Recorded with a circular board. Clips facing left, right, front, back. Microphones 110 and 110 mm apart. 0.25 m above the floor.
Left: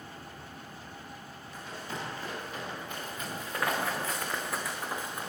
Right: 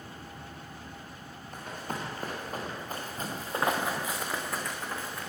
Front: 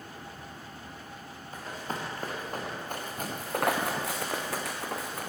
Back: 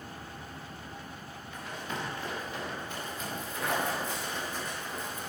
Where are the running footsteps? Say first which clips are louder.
Right 3 dB, front 2 dB; 55° right, 2.5 m; by 5.3 s 25° left, 1.3 m.